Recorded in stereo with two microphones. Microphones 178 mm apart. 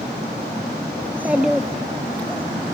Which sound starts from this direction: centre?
A child speaking, at 1.0 s.